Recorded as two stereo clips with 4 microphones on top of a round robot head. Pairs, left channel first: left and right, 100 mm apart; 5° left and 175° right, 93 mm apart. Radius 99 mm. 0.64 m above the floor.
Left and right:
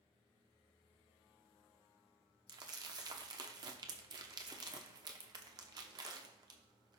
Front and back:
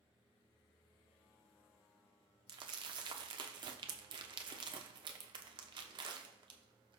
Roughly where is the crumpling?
Behind right.